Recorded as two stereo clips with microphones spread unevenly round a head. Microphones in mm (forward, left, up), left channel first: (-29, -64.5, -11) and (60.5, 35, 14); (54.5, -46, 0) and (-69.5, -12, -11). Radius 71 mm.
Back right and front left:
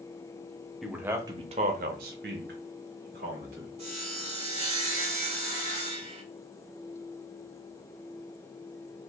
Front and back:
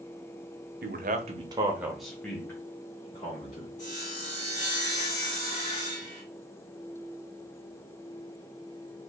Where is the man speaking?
140° left, 0.6 m; by 3.7 s 40° left, 1.3 m.